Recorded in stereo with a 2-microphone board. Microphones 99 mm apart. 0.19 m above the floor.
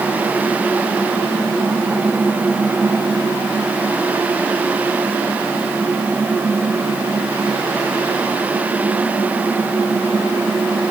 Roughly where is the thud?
I don't hear a thud.